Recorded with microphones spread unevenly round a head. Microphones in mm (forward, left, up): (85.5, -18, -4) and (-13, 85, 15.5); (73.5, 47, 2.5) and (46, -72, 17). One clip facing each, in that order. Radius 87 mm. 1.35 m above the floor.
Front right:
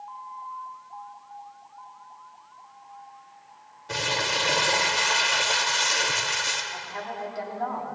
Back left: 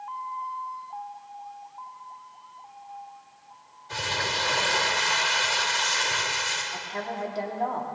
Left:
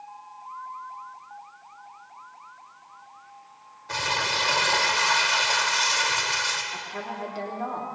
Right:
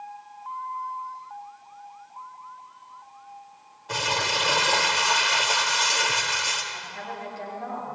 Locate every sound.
3.9 s crumpling: 30° right, 2 m
6.7 s a woman speaking: 70° left, 3 m